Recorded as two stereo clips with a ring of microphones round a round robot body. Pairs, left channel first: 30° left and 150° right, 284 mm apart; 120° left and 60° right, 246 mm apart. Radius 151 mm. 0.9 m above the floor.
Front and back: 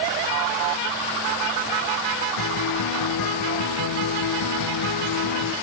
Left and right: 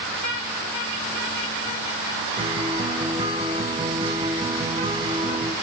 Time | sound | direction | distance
2.4 | a guitar | 10° left | 1.5 m